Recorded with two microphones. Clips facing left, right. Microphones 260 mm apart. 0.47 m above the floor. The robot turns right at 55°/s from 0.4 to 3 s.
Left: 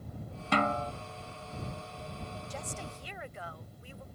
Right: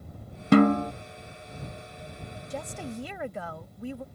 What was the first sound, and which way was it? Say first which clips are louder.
A snare drum: right 13 dB; 50° right (ahead or behind).